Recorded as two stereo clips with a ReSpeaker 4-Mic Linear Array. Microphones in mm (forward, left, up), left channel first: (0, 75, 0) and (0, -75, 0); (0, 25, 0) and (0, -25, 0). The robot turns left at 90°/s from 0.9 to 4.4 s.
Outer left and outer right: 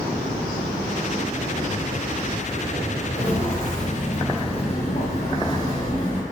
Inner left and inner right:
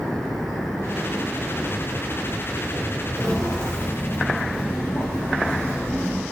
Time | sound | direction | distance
3.1 | footsteps | 10° left (ahead or behind) | 1.4 m